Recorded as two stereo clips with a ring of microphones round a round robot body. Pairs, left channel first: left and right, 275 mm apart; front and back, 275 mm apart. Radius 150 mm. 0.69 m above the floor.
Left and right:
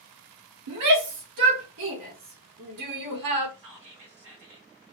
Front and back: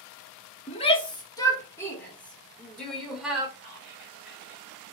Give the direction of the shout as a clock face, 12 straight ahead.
2 o'clock.